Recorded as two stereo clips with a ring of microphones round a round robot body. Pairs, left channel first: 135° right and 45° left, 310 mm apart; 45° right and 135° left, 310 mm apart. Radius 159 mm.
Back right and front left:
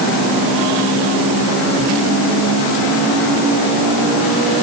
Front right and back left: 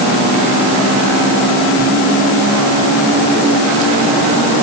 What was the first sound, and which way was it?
Only background noise.